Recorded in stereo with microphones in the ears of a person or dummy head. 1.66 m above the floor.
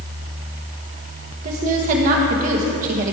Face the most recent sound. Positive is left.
turn(degrees=-45)  # may be behind; listen again after turning